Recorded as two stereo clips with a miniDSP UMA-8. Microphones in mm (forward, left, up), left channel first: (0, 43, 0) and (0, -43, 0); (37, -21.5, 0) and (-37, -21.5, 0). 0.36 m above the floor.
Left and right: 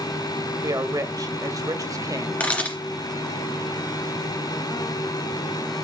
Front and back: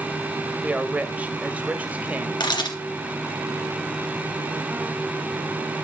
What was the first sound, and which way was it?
A woman speaking, 115° right.